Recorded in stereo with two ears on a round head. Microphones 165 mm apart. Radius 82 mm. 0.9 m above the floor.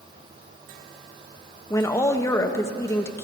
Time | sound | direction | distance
1.7 | a woman speaking | 15° left (ahead or behind) | 0.8 m